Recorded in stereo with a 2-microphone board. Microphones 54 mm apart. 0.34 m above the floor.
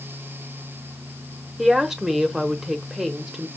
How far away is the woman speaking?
About 0.8 m.